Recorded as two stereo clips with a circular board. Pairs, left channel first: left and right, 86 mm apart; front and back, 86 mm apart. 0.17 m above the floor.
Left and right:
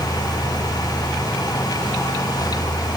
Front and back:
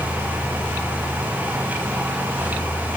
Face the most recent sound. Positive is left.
No sound to turn to.